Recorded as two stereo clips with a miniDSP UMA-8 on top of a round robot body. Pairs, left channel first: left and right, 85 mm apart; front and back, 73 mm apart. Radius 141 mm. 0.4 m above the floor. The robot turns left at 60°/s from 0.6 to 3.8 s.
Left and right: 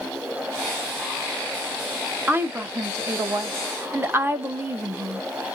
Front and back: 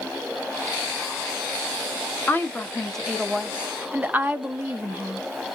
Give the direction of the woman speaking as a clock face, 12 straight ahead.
1 o'clock.